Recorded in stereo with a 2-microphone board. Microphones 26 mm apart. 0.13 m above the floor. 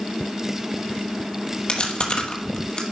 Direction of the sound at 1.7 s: 45° left (ahead or behind).